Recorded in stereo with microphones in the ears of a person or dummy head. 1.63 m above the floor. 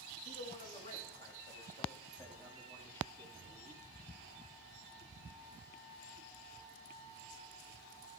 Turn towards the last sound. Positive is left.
turn(degrees=0)  # may be behind; listen again after turning